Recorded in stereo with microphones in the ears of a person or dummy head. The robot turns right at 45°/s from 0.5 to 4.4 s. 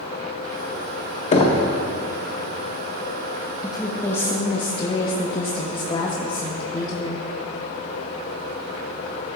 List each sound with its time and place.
1.3 s knocking: 30° left (ahead or behind), 0.7 m; by 1.6 s 15° left (ahead or behind), 0.7 m
3.6 s a woman speaking: straight ahead, 0.7 m; by 7.2 s 35° left, 0.7 m